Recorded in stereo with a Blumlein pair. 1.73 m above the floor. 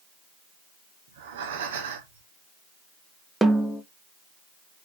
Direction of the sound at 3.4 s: 5° right.